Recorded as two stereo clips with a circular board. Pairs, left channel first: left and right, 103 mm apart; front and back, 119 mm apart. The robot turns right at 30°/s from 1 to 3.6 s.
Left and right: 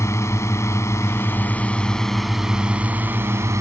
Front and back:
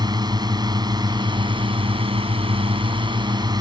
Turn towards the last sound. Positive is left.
turn(degrees=-140)